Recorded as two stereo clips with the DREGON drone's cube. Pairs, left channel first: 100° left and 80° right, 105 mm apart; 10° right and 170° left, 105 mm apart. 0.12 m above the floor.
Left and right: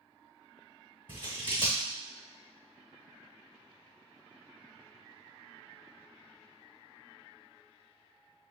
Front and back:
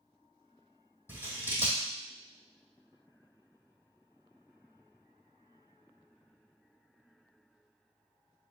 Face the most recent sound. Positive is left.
turn(degrees=55)